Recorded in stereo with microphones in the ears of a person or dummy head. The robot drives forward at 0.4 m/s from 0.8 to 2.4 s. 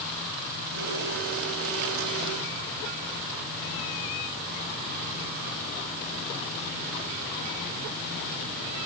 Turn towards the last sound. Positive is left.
No sound to turn to.